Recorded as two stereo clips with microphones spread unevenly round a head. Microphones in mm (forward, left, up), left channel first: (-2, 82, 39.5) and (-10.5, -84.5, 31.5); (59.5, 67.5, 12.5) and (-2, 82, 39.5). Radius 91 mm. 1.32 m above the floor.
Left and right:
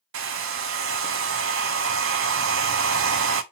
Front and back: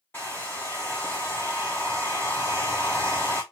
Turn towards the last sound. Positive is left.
turn(degrees=-100)